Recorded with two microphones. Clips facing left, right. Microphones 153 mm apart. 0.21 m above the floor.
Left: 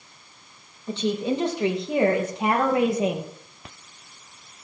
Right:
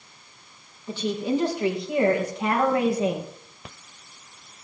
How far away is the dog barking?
I don't hear a dog barking.